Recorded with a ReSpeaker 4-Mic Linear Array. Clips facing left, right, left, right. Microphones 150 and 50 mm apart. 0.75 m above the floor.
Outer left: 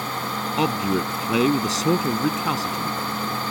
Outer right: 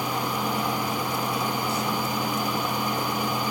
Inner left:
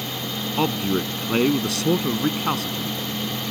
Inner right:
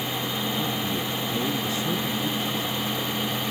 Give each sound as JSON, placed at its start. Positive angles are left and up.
{"t": 0.6, "sound": "a man speaking", "side_deg": 80}